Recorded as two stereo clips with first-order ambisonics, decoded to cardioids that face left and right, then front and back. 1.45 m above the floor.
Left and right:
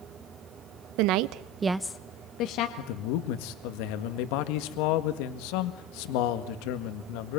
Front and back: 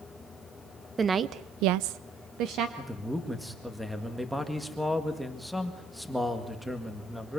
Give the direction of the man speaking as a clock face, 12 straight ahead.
9 o'clock.